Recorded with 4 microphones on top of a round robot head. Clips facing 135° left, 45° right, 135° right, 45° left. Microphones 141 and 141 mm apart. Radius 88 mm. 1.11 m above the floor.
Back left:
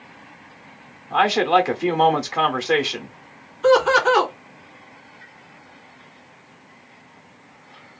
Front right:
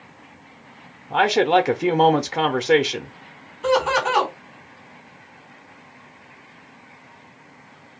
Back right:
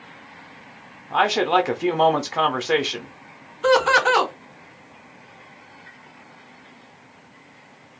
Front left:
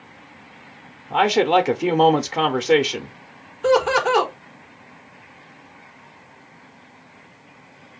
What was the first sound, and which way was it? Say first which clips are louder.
A man speaking: front right 1 dB, front left 3 dB; 5° right.